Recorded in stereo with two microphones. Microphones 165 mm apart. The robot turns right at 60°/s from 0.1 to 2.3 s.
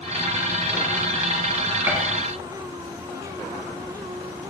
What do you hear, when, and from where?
1.9 s a gunshot: 15° right (ahead or behind), 1.6 m; by 2.0 s 10° right (ahead or behind), 1.6 m